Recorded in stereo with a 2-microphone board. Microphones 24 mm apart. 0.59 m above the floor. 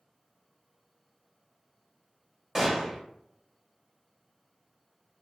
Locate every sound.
2.5 s a gunshot: 15° right (ahead or behind), 1.2 m